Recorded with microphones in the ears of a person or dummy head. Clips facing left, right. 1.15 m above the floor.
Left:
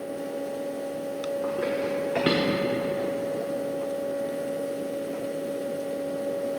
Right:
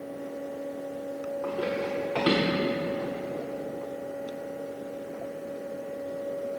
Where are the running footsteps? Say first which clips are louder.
Left 2 dB; 15° left (ahead or behind), 2.5 m; by 3.5 s 35° left (ahead or behind), 4 m.